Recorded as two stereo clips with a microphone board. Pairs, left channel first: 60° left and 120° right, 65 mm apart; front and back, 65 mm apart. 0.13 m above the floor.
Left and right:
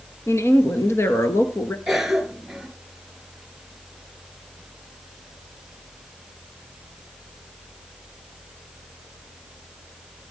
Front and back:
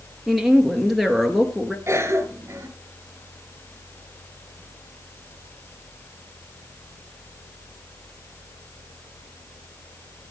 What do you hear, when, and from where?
0.3 s a woman speaking: 90° left, 1.7 m
1.9 s a cough: 155° left, 2 m